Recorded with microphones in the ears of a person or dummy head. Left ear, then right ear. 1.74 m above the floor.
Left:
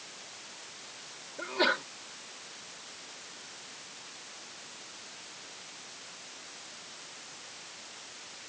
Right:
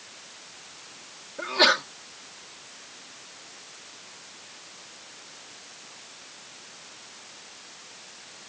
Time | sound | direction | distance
1.4 | a sneeze | 40° right (ahead or behind) | ?